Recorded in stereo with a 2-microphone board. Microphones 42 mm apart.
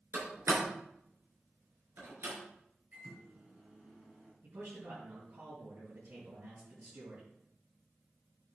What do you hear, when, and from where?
0.1 s a door slam: 65° right (ahead or behind), 4 m
2.9 s a microwave: 35° right (ahead or behind), 4 m
4.4 s a man speaking: 65° right (ahead or behind), 5 m